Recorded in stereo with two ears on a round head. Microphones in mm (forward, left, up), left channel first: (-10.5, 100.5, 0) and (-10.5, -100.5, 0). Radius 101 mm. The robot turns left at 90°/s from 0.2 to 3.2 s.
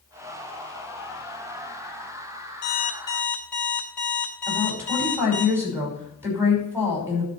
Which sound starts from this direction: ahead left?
An alarm clock, at 2.6 s.